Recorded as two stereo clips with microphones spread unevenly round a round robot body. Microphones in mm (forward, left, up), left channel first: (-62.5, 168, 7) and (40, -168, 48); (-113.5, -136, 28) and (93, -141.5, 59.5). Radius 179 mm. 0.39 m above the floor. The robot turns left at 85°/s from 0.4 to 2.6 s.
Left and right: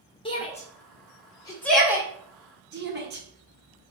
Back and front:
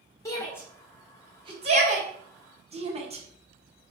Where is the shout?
145° left, 1.2 m; by 3.9 s 40° right, 1.2 m.